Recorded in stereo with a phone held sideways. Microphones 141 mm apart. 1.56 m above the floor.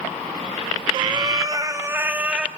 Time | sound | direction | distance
0.9 | a cat meowing | 30° right (ahead or behind) | 2.5 m